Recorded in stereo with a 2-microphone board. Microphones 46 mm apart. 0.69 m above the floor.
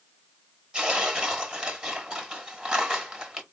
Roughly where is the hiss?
No hiss in this recording.